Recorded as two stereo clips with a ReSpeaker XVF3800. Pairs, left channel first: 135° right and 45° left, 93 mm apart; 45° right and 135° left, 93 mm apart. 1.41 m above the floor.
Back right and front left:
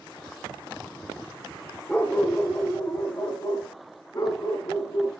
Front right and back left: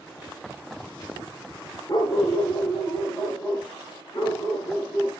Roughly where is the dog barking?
Ahead right.